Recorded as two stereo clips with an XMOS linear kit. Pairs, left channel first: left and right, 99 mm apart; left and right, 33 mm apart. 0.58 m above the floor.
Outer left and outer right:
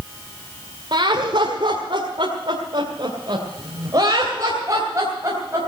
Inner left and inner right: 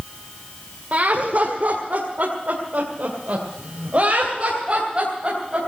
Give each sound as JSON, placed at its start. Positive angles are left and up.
{"t": 0.9, "sound": "laughter", "side_deg": -55, "distance_m": 1.8}